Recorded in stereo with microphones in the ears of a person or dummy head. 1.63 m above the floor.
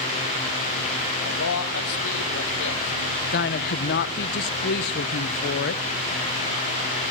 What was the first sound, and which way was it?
A man speaking, 65° left (ahead or behind).